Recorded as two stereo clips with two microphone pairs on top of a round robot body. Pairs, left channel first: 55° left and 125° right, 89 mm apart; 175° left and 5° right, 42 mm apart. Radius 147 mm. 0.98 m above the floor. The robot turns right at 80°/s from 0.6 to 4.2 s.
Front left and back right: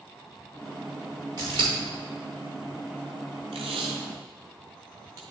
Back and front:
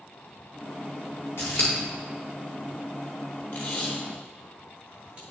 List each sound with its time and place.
1.4 s scissors: 175° right, 1.3 m; by 1.7 s 145° right, 1.3 m
3.5 s tape being pulled: 130° right, 0.8 m; by 5.2 s 75° right, 0.8 m